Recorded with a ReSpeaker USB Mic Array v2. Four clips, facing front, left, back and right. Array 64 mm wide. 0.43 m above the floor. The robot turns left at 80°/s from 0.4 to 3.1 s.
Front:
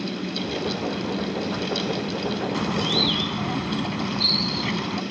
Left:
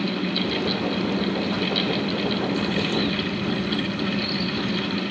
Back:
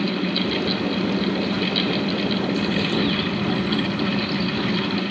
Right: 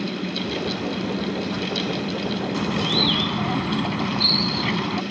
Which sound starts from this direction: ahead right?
A bird, at 2.5 s.